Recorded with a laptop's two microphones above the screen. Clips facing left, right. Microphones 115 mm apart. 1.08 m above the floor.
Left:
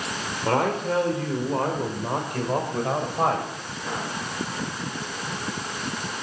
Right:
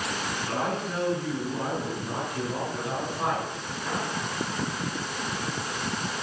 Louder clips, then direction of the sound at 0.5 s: Left 8 dB; 80° left.